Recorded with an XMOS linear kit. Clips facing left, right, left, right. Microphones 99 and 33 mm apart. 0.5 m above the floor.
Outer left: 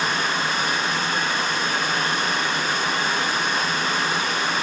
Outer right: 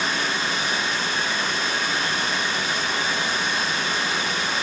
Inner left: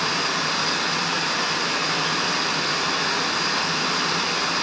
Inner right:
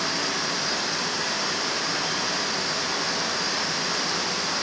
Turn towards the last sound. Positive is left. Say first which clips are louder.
# outer left 2 dB, inner left 4 dB
turn(degrees=45)  # may be behind; listen again after turning